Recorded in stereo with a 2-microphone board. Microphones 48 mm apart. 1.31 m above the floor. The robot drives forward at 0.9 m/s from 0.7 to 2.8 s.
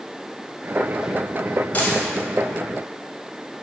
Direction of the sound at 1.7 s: 35° left (ahead or behind).